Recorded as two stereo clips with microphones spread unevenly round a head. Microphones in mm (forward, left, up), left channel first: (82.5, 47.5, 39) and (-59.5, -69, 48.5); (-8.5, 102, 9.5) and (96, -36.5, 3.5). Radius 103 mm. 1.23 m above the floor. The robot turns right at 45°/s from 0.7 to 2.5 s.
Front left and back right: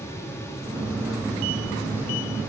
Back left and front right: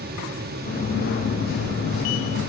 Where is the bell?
I don't hear a bell.